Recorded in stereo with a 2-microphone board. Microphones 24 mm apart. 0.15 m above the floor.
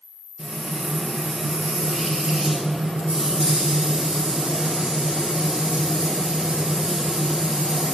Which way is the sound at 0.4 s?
40° right (ahead or behind).